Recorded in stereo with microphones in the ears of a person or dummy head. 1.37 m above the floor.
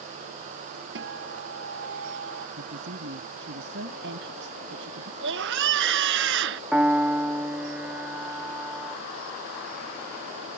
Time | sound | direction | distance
0.9 | a guitar | 70° right (ahead or behind) | ?
2.6 | a woman speaking | 65° right (ahead or behind) | ?
5.2 | a scream | 70° right (ahead or behind) | ?
6.7 | a piano | 5° right (ahead or behind) | ?